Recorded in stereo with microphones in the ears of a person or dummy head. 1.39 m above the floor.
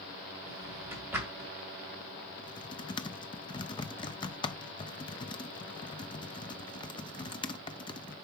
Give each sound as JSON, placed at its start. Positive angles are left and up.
{"t": 0.5, "sound": "a drawer", "side_deg": -10, "distance_m": 2.0}
{"t": 2.4, "sound": "typing on a keyboard", "side_deg": 20, "distance_m": 0.5}